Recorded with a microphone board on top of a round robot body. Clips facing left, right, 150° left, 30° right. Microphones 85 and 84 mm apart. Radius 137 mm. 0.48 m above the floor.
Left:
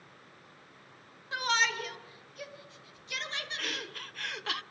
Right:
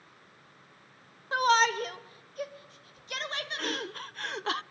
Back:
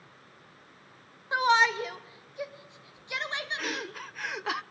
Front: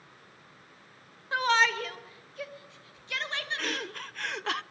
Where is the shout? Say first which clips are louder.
Right 7 dB, back 2 dB; 140° right, 2 m; by 3.9 s 135° right, 4 m.